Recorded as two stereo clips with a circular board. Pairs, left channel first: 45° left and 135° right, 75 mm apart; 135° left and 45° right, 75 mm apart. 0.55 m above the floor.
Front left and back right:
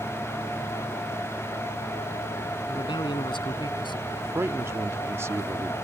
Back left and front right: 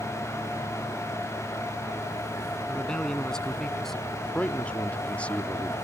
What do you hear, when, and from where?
2.7 s a man speaking: 55° left; by 4.0 s 50° left
4.1 s a man speaking: 165° right